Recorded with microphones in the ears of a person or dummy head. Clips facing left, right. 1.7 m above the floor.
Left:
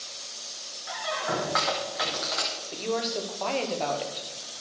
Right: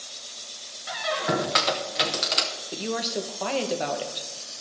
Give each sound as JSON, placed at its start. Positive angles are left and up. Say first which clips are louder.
{"t": 0.9, "sound": "a squeak", "louder": "right 4 dB", "side_deg": -30, "distance_m": 0.8}
{"t": 2.7, "sound": "a woman speaking", "louder": "even", "side_deg": -15, "distance_m": 1.1}